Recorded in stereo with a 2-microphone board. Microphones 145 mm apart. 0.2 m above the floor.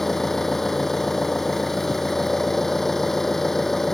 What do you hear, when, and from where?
0.0 s an engine running: 5° left (ahead or behind)